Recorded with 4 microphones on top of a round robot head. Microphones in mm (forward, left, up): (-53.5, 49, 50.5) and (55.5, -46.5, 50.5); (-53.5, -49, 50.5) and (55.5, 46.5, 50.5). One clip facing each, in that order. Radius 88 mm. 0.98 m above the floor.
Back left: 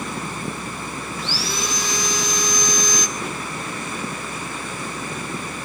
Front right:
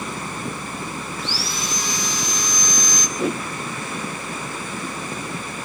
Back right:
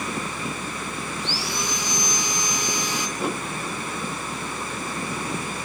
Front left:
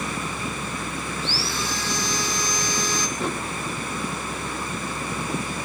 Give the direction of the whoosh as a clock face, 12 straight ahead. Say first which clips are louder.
Front right 7 dB, back right 3 dB; 2 o'clock.